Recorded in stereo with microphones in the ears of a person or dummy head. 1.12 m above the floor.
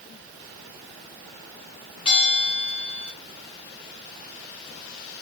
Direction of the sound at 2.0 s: 35° left (ahead or behind).